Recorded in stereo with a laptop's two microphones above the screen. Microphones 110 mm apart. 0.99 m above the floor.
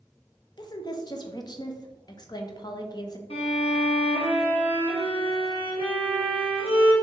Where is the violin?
60° left (ahead or behind), 1.2 m.